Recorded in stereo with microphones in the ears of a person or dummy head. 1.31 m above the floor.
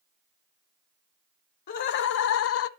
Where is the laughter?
50° left (ahead or behind), 0.8 m; by 2.7 s 75° left (ahead or behind), 0.5 m.